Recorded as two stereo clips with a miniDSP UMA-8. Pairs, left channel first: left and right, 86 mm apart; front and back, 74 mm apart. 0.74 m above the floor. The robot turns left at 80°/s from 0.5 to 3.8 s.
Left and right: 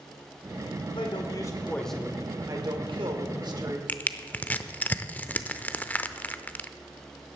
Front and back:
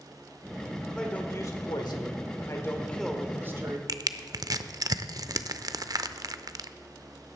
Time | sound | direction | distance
0.9 | a man speaking | 85° left | 1.9 m
3.9 | crushing | 160° left | 0.6 m